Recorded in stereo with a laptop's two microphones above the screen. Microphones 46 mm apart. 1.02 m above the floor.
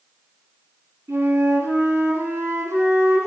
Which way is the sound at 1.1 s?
85° right.